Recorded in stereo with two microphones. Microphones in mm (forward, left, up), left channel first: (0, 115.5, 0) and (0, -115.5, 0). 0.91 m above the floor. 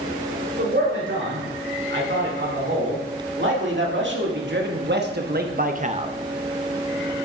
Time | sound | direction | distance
0.6 | a man speaking | 65° right (ahead or behind) | 4 m